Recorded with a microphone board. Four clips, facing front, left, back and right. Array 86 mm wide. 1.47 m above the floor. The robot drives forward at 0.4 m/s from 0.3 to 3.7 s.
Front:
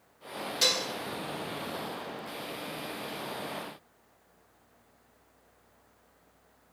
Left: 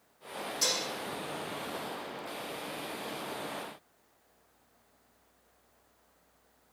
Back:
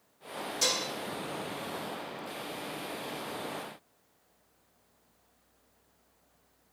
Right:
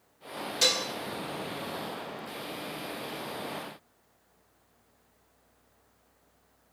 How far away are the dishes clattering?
About 1.0 m.